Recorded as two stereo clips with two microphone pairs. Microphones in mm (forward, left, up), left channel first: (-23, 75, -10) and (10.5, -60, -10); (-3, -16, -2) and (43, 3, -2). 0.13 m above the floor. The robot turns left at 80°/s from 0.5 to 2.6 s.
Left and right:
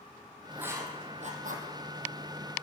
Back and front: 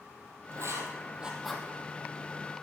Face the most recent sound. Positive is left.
turn(degrees=-160)